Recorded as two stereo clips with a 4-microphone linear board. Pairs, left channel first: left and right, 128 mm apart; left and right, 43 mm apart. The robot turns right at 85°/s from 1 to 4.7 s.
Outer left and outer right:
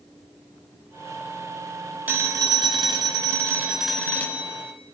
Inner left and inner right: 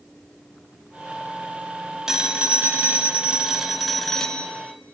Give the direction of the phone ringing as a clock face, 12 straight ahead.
5 o'clock.